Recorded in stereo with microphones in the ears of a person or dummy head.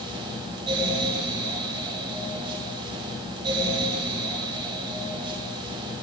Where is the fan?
25° right (ahead or behind), 2 m.